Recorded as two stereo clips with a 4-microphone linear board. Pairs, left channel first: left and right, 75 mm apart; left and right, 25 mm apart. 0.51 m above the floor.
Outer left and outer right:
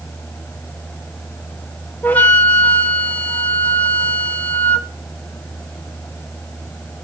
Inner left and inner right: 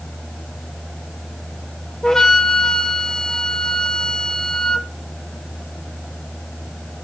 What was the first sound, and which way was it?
A flute, 20° left (ahead or behind).